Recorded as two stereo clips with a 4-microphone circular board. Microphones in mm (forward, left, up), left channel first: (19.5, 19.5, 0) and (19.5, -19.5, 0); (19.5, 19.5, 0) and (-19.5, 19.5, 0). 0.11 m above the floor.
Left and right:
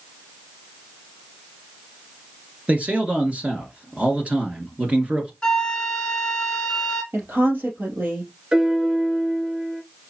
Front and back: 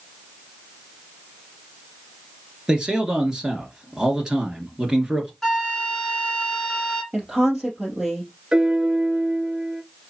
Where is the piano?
130° right, 1.2 m.